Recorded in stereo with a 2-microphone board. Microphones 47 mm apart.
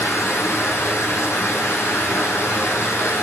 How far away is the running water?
About 6.5 m.